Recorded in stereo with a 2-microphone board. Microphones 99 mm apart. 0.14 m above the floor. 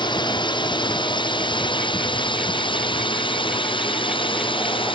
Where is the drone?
50° left (ahead or behind); by 5.0 s 60° left (ahead or behind).